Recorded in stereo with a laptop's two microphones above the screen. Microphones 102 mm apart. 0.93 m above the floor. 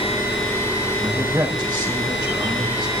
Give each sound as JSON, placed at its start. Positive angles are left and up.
{"t": 1.0, "sound": "a man speaking", "side_deg": -25, "distance_m": 4.5}